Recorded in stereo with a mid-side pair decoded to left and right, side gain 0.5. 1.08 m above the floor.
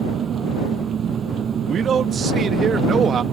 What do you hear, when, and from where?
0.0 s an engine running: 50° right
1.7 s a man speaking: 50° right